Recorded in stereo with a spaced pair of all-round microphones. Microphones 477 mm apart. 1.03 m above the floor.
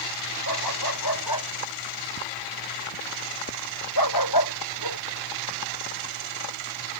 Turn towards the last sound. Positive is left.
turn(degrees=50)  # may be behind; listen again after turning